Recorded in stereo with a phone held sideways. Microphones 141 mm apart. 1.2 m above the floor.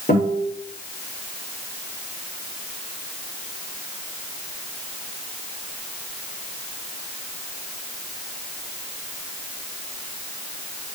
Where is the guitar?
75° left (ahead or behind), 3.5 m.